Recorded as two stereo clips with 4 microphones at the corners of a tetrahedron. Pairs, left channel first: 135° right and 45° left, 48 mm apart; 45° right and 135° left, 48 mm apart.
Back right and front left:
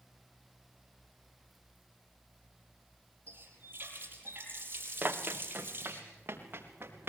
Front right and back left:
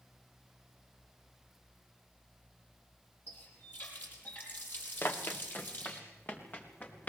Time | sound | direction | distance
3.3 | a running tap | 5° left | 5 m
5.0 | running footsteps | 5° right | 2 m